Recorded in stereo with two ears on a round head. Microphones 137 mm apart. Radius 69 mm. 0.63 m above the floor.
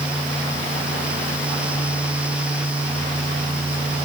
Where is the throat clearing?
I don't hear throat clearing.